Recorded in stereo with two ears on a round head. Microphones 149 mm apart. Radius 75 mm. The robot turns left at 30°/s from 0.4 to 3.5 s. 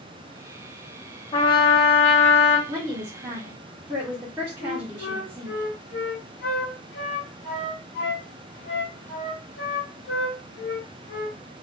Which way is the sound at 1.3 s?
125° left.